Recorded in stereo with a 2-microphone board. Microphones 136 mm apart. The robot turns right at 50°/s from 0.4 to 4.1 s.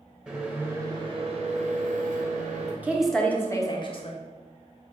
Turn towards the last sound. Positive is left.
turn(degrees=50)